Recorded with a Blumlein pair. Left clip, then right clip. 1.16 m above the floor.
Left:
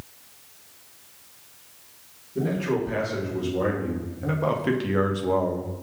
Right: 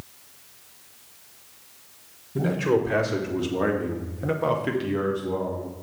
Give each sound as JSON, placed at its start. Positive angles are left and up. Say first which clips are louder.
{"t": 2.4, "sound": "a man speaking", "louder": "right 3 dB", "azimuth_deg": -35, "distance_m": 1.8}